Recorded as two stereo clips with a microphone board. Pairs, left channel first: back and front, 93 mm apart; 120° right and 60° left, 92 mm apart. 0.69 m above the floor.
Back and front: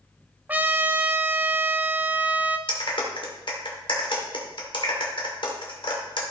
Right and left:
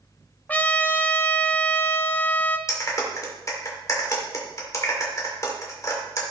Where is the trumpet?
60° right, 0.7 m.